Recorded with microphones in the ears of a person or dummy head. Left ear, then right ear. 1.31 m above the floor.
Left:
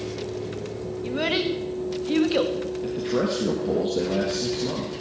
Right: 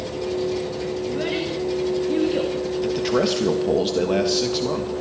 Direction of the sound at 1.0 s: 30° left (ahead or behind).